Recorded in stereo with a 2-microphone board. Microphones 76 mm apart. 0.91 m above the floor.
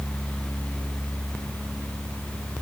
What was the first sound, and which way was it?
Only background noise.